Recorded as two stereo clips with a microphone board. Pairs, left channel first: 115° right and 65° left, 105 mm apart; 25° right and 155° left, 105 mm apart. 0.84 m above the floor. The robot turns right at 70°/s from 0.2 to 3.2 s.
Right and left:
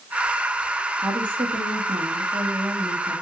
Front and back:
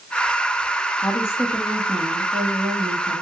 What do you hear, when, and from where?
1.0 s a woman speaking: 20° left, 1.4 m; by 3.2 s 175° left, 1.4 m